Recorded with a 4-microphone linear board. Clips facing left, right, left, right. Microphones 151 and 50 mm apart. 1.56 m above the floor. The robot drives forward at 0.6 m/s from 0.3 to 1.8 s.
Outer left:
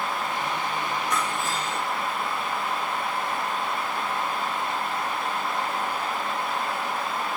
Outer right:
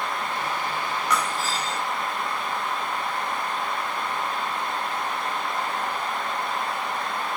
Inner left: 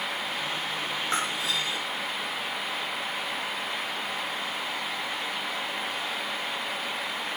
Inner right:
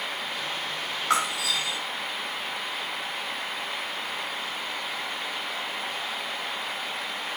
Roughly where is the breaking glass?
Right.